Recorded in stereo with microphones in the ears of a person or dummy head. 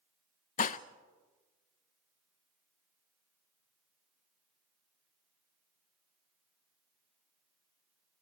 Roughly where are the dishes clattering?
Left.